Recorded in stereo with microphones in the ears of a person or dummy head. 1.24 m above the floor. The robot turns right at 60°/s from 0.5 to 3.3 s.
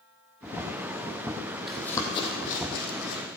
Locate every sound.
1.7 s running footsteps: centre (ahead or behind), 2 m; by 3.2 s 60° left (ahead or behind), 3 m